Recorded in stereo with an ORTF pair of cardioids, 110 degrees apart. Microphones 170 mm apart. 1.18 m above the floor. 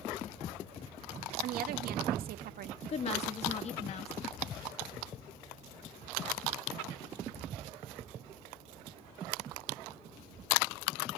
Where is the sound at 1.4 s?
65° right, 2 m.